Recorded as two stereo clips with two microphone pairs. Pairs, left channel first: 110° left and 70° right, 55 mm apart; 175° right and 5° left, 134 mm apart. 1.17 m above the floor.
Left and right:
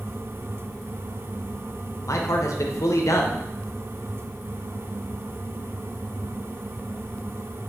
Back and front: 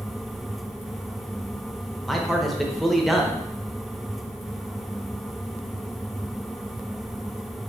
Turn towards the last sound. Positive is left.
turn(degrees=95)